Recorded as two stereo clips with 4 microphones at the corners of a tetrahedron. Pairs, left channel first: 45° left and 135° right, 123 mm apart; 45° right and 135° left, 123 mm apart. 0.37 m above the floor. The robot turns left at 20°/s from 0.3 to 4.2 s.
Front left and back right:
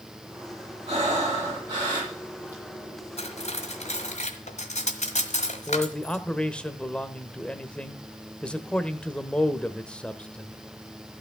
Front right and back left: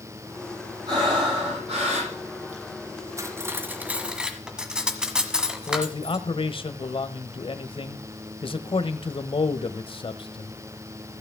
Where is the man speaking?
35° right, 1.1 m.